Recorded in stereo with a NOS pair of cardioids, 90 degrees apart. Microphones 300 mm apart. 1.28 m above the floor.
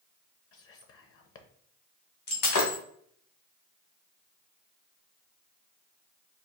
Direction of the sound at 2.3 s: 60° left.